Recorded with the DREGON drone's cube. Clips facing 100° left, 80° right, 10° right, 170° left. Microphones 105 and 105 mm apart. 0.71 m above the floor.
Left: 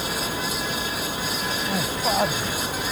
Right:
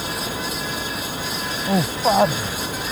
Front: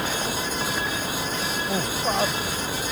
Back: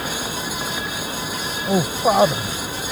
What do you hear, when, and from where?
1.6 s a man speaking: 130° right; by 2.9 s 150° right